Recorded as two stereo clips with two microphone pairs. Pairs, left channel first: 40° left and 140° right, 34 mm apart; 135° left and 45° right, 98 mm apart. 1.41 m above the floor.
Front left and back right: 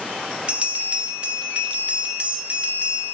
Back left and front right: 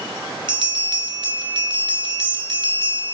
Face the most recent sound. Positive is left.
turn(degrees=-80)